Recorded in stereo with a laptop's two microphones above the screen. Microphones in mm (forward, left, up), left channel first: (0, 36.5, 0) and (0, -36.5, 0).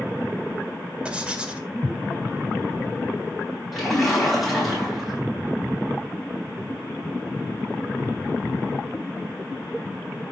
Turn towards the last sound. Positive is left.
turn(degrees=0)  # may be behind; listen again after turning